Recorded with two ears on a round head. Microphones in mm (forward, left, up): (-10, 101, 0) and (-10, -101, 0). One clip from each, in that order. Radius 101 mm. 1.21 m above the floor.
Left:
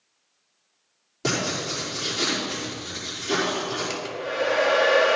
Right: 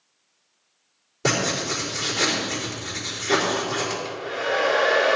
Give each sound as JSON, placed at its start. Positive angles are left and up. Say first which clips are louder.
{"t": 1.2, "sound": "writing", "louder": "right 3 dB", "side_deg": 15, "distance_m": 4.0}
{"t": 3.9, "sound": "a hair dryer", "louder": "even", "side_deg": 40, "distance_m": 1.6}